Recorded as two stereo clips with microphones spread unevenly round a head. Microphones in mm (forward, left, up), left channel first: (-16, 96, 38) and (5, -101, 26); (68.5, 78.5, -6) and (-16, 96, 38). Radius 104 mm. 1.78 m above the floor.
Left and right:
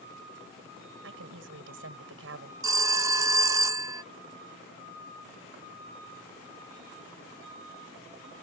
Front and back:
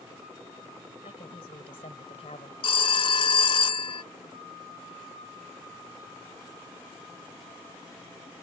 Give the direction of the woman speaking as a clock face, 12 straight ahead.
2 o'clock.